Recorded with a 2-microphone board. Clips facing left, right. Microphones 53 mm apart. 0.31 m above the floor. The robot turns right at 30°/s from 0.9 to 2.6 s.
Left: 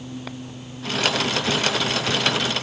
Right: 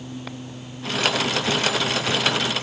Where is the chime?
No chime in this recording.